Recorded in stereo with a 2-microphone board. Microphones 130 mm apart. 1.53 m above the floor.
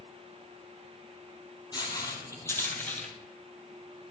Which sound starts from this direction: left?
Footsteps, at 1.7 s.